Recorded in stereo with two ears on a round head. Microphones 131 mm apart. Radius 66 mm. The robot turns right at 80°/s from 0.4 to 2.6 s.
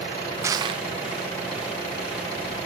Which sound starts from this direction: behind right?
Crushing, at 0.4 s.